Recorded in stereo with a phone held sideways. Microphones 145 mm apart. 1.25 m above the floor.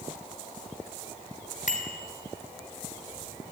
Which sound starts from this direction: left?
A bicycle bell, at 1.7 s.